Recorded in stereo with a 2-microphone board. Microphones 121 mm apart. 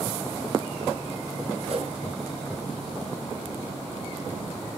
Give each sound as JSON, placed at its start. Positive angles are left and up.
{"t": 1.7, "sound": "a whoosh", "side_deg": -55, "distance_m": 1.8}